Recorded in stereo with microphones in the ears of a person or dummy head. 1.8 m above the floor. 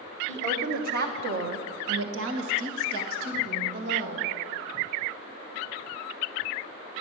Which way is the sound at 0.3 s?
45° right (ahead or behind).